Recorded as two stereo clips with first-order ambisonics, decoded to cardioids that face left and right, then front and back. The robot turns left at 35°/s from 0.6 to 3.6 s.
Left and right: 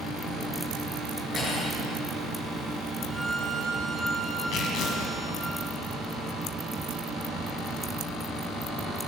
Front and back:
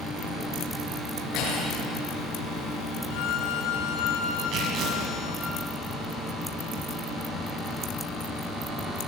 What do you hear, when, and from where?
1.3 s cutlery clinking: 30° left, 9.5 m; by 1.8 s 15° left, 9.5 m
3.1 s a violin: 5° left, 2 m; by 5.5 s 15° right, 2 m
4.5 s tearing paper: 130° left, 5 m